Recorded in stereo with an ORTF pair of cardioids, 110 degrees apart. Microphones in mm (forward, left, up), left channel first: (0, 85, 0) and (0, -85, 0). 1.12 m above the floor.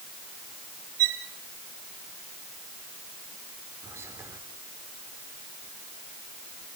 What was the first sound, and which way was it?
A violin, 60° right.